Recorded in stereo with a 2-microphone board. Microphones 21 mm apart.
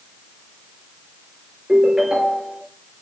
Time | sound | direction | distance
1.7 | a ringtone | 40° right (ahead or behind) | 6.5 m